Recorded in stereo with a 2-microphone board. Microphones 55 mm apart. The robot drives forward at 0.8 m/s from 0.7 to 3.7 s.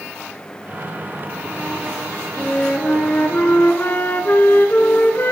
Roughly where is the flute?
Left.